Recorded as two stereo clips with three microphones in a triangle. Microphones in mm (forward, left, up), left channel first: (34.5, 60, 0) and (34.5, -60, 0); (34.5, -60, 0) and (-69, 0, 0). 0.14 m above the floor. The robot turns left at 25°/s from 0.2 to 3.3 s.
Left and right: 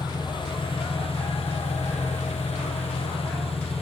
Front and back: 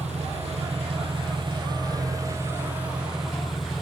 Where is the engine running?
140° left, 3 m; by 3.8 s 60° left, 3 m.